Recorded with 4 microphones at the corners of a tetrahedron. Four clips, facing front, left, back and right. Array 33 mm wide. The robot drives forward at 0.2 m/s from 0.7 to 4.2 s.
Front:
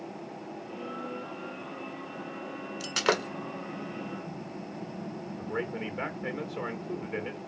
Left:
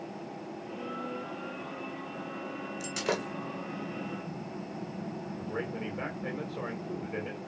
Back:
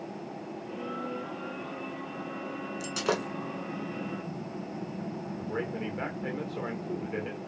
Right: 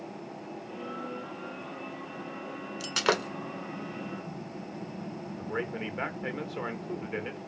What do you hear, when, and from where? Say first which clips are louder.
2.8 s breaking glass: right 5 dB, front 3 dB; 50° right, 1.3 m; by 3.3 s 55° right, 1.3 m
5.4 s a man speaking: right 3 dB, front 1 dB; 90° right, 1.5 m